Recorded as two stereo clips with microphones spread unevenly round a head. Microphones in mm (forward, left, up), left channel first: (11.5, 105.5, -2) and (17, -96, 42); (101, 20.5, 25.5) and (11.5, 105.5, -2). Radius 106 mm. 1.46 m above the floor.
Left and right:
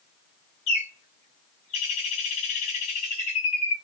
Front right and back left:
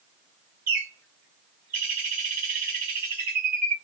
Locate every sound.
0.7 s a bird: 155° left, 1.0 m